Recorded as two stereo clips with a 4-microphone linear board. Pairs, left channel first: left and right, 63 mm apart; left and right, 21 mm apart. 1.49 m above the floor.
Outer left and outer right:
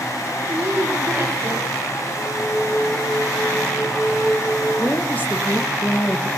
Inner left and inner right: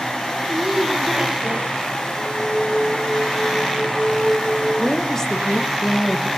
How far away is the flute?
About 2.5 m.